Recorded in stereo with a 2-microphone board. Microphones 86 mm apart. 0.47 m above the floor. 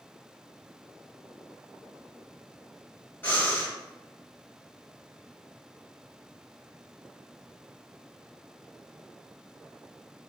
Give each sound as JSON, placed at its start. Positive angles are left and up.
{"t": 3.2, "sound": "breathing", "side_deg": 25, "distance_m": 1.8}